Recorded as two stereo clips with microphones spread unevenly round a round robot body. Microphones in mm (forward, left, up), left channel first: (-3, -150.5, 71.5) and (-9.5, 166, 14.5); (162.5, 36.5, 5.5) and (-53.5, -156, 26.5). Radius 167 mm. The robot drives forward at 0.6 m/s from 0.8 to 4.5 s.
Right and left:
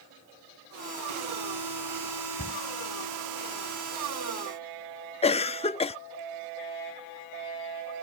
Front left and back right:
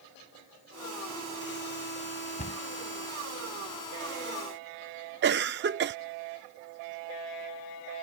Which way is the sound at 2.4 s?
25° right.